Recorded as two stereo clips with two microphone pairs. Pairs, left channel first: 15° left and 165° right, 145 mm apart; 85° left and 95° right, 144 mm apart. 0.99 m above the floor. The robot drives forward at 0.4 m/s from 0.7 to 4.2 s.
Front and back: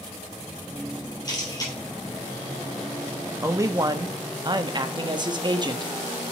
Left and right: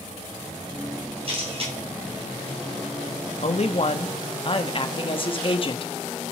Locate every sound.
1.2 s a camera shutter: 45° right, 5 m; by 1.7 s 50° right, 5 m
3.4 s a man speaking: 120° left, 1.0 m; by 5.9 s 135° left, 1.2 m